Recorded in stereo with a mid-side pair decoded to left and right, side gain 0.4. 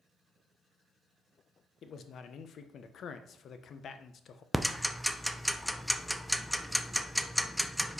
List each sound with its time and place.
1.8 s a man speaking: 65° left, 0.8 m
4.5 s ticking: straight ahead, 0.6 m